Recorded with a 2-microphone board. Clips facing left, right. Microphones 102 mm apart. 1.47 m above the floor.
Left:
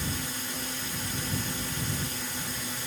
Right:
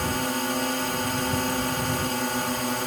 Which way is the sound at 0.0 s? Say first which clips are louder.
Right 10 dB; 70° right (ahead or behind).